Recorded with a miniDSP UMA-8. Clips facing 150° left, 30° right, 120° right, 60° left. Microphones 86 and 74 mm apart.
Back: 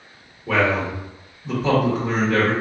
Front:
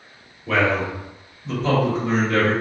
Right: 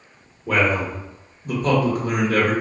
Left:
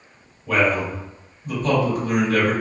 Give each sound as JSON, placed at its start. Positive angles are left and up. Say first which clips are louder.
{"t": 0.5, "sound": "a man speaking", "louder": "even, even", "azimuth_deg": -135, "distance_m": 1.4}